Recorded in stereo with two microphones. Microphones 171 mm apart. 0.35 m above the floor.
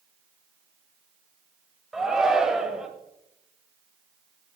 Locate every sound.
1.9 s a shout: 5° right (ahead or behind), 1.4 m